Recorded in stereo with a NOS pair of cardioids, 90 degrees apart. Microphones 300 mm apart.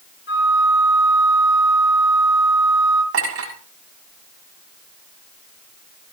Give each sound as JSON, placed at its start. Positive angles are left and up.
{"t": 0.3, "sound": "a flute", "azimuth_deg": 40, "distance_m": 2.5}
{"t": 3.1, "sound": "a clink", "azimuth_deg": -50, "distance_m": 7.0}